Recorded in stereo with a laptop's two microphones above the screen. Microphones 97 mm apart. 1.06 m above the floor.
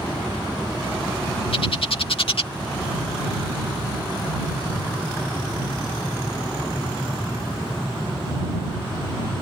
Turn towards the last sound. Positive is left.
turn(degrees=70)  # may be behind; listen again after turning